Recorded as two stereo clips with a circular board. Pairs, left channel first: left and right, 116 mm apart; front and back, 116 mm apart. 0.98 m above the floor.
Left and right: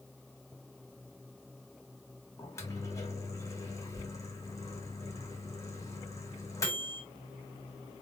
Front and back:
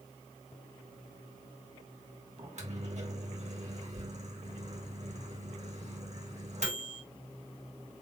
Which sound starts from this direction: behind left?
A microwave, at 2.4 s.